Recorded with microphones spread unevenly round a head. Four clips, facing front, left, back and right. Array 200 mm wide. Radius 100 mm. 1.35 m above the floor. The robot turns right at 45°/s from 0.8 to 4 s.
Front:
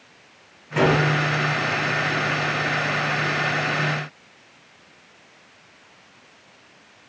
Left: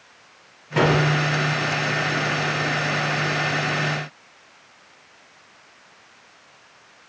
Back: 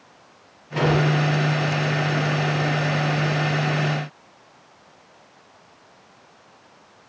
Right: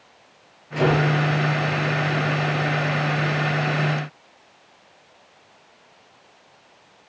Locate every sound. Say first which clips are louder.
0.8 s a gunshot: left 1 dB, front 2 dB; 75° left, 10 m; by 1.0 s 85° left, 10 m